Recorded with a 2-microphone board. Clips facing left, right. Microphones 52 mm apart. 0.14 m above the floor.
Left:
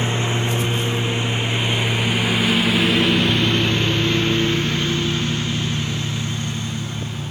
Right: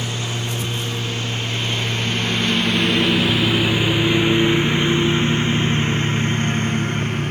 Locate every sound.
0.0 s a lawn mower: 25° left (ahead or behind); by 7.3 s 55° right (ahead or behind)